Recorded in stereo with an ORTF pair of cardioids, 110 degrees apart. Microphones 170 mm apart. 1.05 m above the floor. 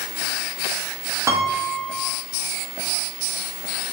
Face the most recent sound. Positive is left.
turn(degrees=-15)